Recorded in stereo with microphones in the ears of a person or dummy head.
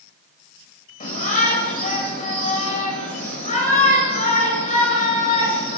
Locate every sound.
1.0 s a shout: 45° left (ahead or behind), 7 m